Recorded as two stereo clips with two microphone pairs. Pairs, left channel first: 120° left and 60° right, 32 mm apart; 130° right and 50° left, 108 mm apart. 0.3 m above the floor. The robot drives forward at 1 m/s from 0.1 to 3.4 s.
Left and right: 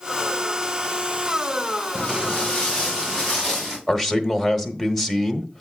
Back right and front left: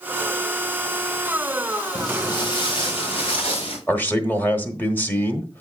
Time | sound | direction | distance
1.9 | footsteps | 175° left | 1.5 m
3.9 | a man speaking | 175° right | 1.1 m